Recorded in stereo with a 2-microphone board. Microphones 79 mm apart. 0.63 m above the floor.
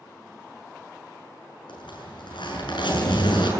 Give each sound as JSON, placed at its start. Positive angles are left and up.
{"t": 1.7, "sound": "a zipper", "side_deg": 85, "distance_m": 7.5}